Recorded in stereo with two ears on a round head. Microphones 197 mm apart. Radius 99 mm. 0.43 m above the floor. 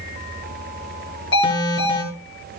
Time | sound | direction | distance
1.3 | an alarm | 20° left (ahead or behind) | 6.5 m